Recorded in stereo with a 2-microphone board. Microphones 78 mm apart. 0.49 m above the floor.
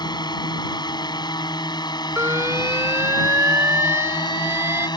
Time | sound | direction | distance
0.0 | a drone | 65° left (ahead or behind) | ?
2.2 | an alarm | 40° right (ahead or behind) | ?